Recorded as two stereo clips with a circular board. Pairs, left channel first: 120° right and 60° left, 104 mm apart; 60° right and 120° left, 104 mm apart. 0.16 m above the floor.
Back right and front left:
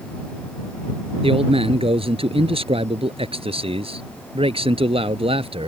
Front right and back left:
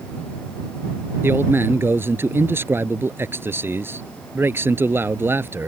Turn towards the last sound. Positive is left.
turn(degrees=55)